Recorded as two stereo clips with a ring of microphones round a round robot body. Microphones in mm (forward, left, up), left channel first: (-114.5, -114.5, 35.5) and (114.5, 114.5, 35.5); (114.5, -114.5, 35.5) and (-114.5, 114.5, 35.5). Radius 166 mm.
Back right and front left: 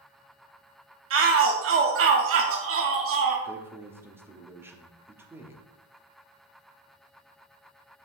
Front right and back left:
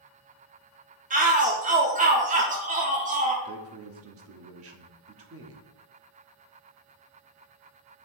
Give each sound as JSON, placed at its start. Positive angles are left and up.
{"t": 1.1, "sound": "a shout", "azimuth_deg": 75, "distance_m": 0.8}
{"t": 3.5, "sound": "a man speaking", "azimuth_deg": 125, "distance_m": 1.1}